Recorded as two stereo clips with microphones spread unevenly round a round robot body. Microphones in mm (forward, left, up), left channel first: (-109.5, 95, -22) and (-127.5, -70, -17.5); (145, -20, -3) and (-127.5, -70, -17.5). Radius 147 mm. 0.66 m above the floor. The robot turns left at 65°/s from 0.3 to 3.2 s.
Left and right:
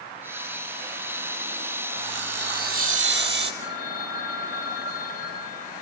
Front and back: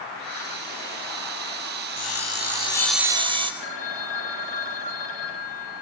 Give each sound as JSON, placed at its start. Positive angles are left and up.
{"t": 2.0, "sound": "sawing", "azimuth_deg": -15, "distance_m": 3.0}
{"t": 3.6, "sound": "a phone ringing", "azimuth_deg": 45, "distance_m": 3.0}